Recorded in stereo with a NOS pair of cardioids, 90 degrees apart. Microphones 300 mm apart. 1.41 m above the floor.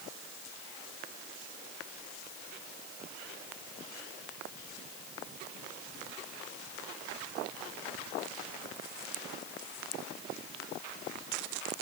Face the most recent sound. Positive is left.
No sound to turn to.